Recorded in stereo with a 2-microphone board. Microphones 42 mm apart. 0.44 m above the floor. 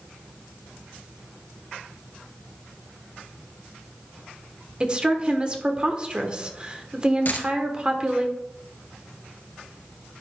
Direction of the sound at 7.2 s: 55° left (ahead or behind).